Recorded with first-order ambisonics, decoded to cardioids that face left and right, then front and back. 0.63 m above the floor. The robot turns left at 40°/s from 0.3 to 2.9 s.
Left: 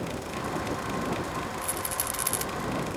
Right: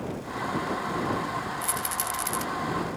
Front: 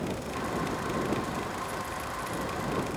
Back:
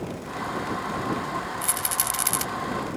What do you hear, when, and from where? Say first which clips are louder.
1.6 s a rattle: right 2 dB, back 5 dB; 165° right; by 2.5 s 160° left